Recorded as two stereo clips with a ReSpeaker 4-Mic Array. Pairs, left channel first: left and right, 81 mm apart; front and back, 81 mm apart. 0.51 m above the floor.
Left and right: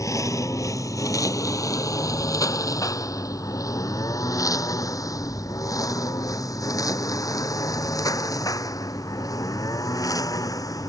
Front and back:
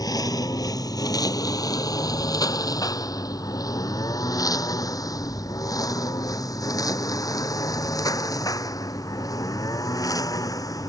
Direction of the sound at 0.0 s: 40° left.